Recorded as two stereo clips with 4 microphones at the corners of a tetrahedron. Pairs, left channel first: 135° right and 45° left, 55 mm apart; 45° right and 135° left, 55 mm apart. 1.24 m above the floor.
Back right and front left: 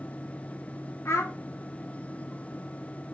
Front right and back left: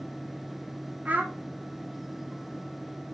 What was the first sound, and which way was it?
A child speaking, 165° right.